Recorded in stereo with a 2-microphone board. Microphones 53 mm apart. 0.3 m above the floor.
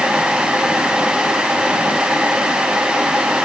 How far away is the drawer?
No drawer in this recording.